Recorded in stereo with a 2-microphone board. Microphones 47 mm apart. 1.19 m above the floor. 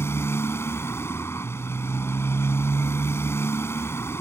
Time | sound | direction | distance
0.0 | a motorcycle | 65° left (ahead or behind) | ?